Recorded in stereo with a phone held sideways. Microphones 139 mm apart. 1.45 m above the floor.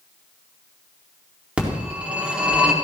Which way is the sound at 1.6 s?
10° right (ahead or behind).